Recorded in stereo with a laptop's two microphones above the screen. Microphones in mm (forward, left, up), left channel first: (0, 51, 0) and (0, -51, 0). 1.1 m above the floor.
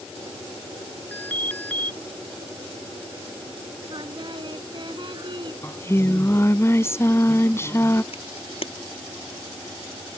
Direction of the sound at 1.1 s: 15° left (ahead or behind).